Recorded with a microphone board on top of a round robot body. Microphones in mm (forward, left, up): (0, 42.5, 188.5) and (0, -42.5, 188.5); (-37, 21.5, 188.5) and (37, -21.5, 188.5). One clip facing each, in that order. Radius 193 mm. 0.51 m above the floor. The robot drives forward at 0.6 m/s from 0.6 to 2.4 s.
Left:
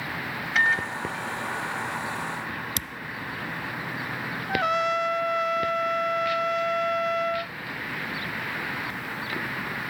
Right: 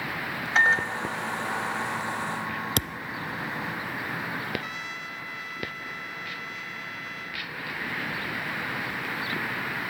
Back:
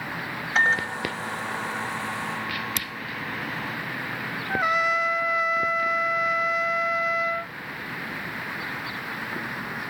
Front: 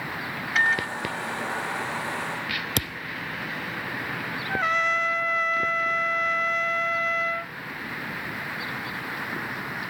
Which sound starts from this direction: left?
A trumpet, at 4.5 s.